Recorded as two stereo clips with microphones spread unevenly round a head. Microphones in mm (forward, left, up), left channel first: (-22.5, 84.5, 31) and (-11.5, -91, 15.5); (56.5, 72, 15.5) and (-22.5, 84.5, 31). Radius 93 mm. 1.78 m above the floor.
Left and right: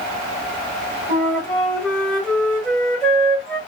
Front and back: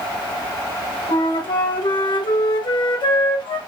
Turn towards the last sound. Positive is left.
turn(degrees=5)